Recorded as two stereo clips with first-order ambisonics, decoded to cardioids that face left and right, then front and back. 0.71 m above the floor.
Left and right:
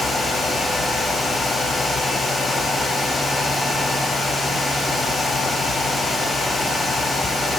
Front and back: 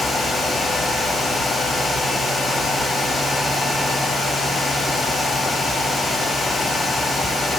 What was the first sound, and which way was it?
Only background noise.